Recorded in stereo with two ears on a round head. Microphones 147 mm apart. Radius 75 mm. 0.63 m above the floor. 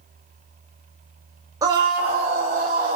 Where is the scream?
20° right (ahead or behind), 0.8 m; by 3.0 s 50° right (ahead or behind), 2.5 m.